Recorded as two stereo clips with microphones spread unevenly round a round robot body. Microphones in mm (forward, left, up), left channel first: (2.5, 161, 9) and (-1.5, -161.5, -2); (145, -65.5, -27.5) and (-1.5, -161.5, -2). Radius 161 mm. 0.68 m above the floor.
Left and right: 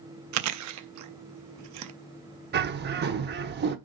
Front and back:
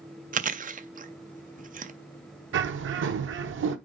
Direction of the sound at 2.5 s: 150° right.